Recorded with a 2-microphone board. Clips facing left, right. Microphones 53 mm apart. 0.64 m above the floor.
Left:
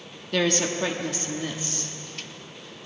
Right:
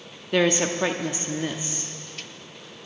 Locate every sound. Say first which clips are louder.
0.3 s a woman speaking: right 3 dB; 20° right (ahead or behind), 0.8 m